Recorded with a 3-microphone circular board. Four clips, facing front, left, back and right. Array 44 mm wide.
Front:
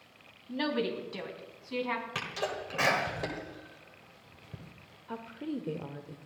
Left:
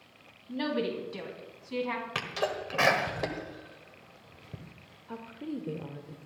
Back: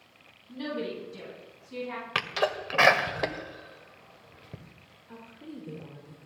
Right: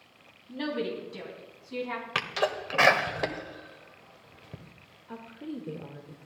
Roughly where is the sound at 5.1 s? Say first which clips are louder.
Left 1 dB, front 7 dB; ahead.